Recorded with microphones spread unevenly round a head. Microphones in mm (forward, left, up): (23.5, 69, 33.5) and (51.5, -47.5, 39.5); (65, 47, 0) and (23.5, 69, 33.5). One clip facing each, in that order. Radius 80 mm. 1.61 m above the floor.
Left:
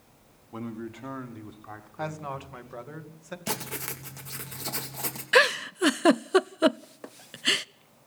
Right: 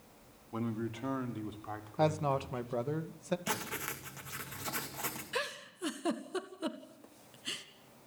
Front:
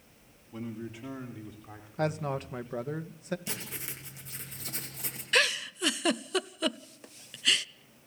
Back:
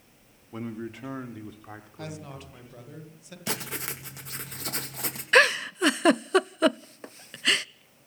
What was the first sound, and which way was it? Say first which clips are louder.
A man speaking: even, back 4 dB; 165° right.